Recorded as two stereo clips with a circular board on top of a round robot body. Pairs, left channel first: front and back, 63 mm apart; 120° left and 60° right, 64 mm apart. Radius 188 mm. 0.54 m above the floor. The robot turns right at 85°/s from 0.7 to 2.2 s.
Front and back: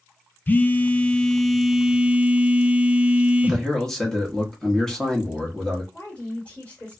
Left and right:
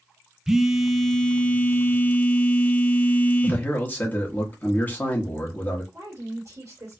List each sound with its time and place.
0.5 s a phone buzzing: 15° left, 0.6 m; by 3.6 s 145° left, 0.6 m
3.4 s a man speaking: 80° left, 1.2 m
5.9 s a woman speaking: 60° right, 2 m